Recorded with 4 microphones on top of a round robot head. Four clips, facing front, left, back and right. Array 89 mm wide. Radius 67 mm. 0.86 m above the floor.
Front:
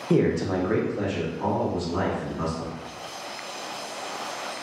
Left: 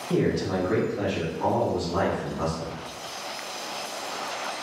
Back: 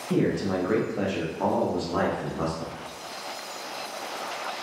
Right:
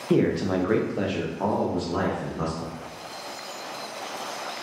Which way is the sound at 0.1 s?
45° right.